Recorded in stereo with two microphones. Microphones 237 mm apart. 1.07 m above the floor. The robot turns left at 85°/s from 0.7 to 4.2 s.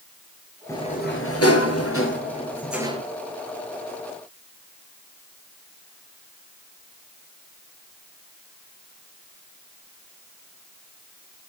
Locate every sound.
0.7 s a sliding door: 170° left, 4 m; by 3.0 s 30° right, 4 m